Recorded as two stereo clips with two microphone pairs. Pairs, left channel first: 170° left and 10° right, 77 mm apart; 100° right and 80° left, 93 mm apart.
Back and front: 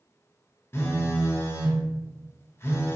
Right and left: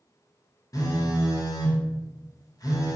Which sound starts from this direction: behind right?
A phone buzzing, at 0.7 s.